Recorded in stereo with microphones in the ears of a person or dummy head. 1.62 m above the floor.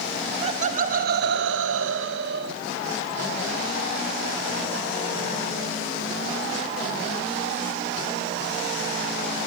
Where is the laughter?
40° right (ahead or behind), 1.4 m; by 2.5 s 60° right (ahead or behind), 1.2 m.